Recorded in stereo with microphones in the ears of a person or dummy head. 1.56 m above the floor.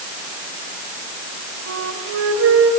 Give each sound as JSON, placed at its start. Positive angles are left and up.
{"t": 1.7, "sound": "a flute", "side_deg": -75, "distance_m": 6.0}